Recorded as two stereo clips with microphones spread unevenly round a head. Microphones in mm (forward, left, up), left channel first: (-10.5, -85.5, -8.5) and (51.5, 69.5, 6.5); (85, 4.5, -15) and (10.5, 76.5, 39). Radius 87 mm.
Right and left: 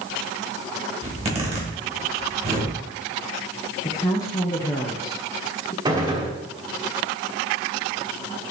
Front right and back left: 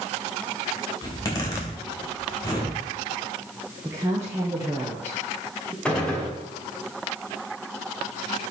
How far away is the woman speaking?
About 0.8 m.